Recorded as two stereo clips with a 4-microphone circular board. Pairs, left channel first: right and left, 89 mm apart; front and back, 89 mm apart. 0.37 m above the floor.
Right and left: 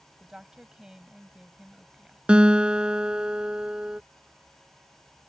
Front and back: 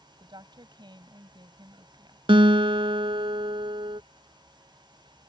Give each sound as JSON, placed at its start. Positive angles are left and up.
{"t": 0.2, "sound": "a woman speaking", "azimuth_deg": 170}
{"t": 2.3, "sound": "a guitar", "azimuth_deg": 170}